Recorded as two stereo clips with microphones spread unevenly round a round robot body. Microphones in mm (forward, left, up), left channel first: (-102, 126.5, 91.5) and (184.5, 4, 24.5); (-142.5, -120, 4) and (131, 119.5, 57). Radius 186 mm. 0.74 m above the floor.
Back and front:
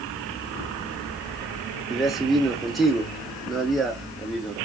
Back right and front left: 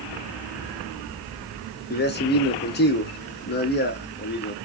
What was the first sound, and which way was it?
A man speaking, 100° right.